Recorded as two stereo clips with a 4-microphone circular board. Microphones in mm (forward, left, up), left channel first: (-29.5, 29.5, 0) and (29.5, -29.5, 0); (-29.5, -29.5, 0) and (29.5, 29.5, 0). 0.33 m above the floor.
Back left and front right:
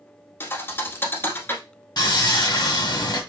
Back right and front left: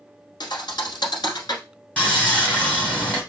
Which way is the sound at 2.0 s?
155° left.